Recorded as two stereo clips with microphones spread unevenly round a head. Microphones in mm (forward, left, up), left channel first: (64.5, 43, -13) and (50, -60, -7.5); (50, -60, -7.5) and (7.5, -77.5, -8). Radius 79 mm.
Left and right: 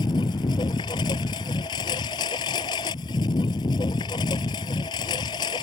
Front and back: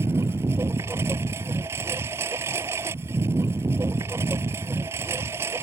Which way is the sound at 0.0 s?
145° left.